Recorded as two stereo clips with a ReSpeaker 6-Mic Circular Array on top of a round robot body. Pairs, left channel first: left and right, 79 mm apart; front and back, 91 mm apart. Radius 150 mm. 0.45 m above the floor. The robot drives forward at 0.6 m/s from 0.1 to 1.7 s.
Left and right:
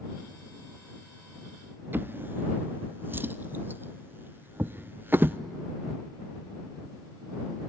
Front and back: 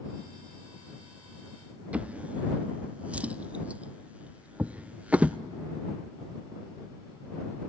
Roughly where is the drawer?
Behind right.